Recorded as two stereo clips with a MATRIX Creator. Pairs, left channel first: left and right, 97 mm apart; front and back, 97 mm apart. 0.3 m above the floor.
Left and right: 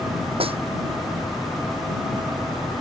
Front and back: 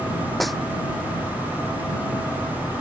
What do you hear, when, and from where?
0.4 s a snare drum: 90° right